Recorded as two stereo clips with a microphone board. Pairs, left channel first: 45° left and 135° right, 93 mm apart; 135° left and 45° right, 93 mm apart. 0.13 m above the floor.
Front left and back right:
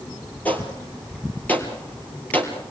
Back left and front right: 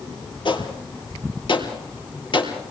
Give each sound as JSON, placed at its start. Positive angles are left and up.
{"t": 0.5, "sound": "a gunshot", "azimuth_deg": 115, "distance_m": 3.5}